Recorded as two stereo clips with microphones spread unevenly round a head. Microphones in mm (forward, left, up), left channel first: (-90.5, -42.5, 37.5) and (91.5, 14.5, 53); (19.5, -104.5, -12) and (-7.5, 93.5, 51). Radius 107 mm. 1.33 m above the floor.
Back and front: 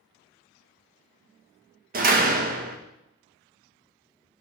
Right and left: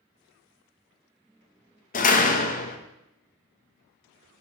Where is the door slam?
30° right, 1.2 m.